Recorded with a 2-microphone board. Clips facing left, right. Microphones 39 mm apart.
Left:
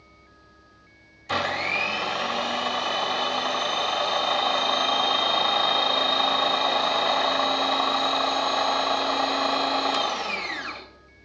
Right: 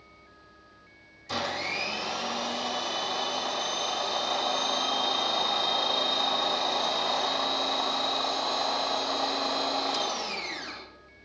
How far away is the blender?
About 1.4 m.